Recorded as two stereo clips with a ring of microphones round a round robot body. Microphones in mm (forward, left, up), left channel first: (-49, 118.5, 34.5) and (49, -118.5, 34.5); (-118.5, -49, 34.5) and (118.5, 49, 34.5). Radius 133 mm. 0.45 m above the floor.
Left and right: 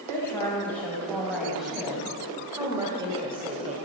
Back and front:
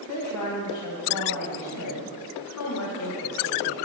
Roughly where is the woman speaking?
Behind.